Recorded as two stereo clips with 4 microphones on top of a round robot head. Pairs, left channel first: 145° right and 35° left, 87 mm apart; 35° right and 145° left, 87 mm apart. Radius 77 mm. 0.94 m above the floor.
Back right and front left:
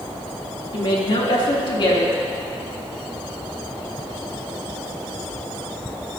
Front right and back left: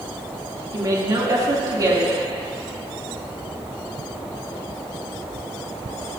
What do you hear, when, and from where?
0.7 s a woman speaking: 170° right, 2.5 m